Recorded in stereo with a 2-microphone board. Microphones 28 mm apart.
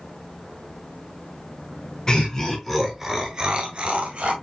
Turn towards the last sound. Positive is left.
turn(degrees=-45)  # may be behind; listen again after turning